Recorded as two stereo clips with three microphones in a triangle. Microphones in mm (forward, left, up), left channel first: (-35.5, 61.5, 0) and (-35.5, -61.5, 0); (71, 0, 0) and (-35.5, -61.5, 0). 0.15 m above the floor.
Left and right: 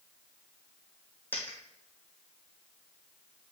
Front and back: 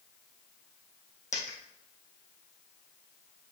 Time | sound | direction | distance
1.3 | a dropped coin | 15° left | 2 m